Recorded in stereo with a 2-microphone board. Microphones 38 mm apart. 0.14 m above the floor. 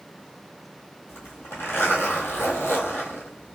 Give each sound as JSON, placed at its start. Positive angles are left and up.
{"t": 1.1, "sound": "a zipper", "side_deg": 80, "distance_m": 1.3}